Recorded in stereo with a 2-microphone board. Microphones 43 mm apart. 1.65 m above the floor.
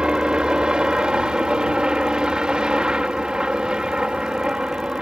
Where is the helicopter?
20° right (ahead or behind).